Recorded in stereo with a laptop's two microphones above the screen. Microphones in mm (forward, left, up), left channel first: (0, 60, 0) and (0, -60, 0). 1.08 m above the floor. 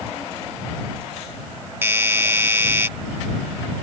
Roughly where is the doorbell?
Centre.